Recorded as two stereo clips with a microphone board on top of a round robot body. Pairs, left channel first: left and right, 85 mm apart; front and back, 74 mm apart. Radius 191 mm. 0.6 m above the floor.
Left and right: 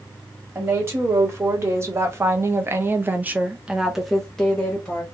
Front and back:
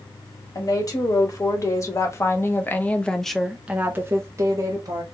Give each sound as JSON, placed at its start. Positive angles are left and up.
{"t": 0.6, "sound": "a woman speaking", "azimuth_deg": -35, "distance_m": 1.9}